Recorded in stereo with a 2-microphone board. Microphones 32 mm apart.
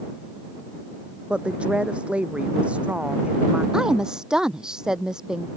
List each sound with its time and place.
1.3 s a woman speaking: 40° right (ahead or behind)
3.7 s a woman speaking: 20° right (ahead or behind)